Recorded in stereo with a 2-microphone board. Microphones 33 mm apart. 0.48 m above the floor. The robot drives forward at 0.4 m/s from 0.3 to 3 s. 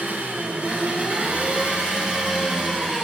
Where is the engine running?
65° right (ahead or behind), 1.0 m; by 3.0 s 30° right (ahead or behind), 1.7 m.